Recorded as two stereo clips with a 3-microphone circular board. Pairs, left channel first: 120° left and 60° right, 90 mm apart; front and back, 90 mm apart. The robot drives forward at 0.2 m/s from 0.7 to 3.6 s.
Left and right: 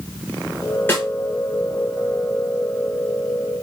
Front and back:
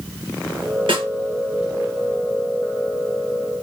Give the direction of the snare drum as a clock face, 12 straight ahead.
6 o'clock.